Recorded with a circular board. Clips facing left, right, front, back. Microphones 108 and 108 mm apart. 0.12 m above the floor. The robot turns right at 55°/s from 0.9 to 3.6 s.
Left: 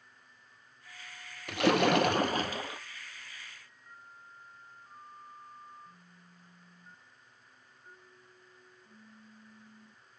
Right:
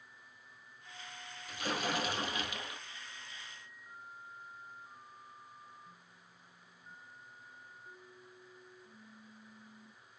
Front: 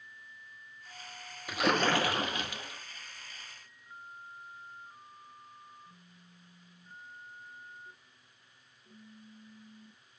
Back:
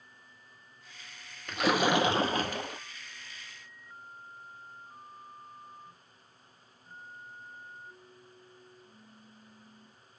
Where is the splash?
80° left, 0.8 m; by 2.8 s 155° left, 0.8 m.